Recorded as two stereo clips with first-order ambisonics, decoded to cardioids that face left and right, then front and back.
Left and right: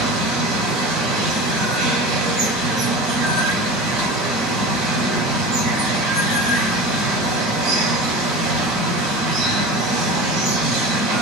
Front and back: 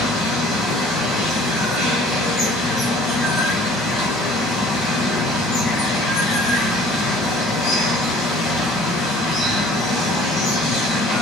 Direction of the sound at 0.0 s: 65° right.